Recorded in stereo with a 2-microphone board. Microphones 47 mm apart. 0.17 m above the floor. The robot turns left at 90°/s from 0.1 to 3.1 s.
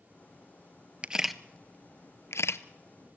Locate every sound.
1.0 s a camera shutter: 25° right (ahead or behind), 0.6 m; by 2.6 s 60° left (ahead or behind), 0.6 m